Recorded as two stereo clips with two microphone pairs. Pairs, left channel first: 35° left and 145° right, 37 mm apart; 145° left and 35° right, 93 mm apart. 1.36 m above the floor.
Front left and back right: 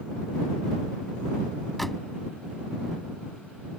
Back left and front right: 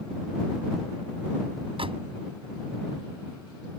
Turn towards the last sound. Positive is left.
turn(degrees=-50)